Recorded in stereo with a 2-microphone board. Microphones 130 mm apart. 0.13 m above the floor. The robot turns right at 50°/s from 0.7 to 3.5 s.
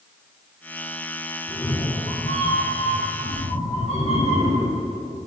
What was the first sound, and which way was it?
A cat meowing, 25° left.